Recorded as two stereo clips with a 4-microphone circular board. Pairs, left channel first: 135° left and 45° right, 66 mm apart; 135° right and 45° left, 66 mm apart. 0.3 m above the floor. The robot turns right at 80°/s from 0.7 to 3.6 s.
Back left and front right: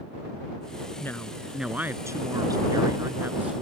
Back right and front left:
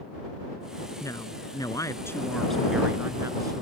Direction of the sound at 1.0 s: 175° right.